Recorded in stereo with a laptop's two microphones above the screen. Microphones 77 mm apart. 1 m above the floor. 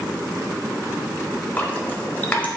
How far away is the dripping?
About 1.2 m.